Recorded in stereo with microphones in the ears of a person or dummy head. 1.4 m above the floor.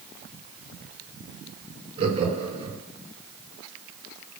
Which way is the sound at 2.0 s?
25° right (ahead or behind).